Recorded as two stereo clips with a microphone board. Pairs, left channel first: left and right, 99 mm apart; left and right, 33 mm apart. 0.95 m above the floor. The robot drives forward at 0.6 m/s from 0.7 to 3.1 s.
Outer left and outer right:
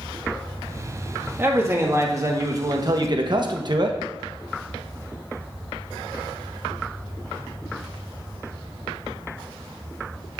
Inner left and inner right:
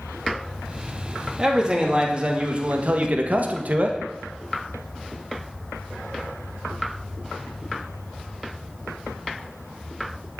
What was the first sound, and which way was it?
A man speaking, 25° right (ahead or behind).